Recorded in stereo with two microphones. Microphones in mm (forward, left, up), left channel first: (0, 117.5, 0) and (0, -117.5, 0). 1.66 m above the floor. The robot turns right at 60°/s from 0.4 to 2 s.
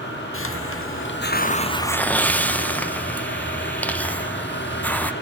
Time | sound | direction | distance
0.3 | a hiss | 75° left | 0.5 m